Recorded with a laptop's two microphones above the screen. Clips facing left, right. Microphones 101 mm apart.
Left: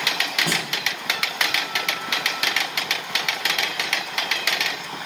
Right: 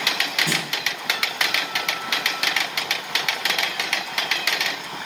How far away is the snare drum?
About 2.5 m.